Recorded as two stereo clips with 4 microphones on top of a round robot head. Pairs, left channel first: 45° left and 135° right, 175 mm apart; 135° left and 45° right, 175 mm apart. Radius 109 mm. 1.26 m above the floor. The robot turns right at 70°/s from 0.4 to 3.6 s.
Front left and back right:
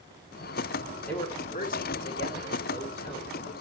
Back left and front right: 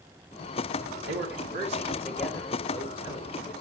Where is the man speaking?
35° right, 3 m; by 3.6 s 140° left, 3 m.